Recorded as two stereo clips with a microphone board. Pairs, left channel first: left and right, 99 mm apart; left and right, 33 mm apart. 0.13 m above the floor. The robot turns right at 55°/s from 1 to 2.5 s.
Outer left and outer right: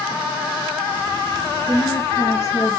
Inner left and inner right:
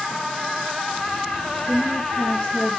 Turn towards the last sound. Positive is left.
turn(degrees=35)